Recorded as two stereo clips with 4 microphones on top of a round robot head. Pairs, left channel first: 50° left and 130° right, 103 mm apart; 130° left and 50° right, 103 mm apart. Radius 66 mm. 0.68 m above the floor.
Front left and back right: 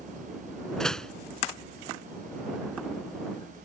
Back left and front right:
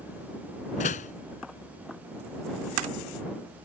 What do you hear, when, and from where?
0.8 s a door slam: 130° left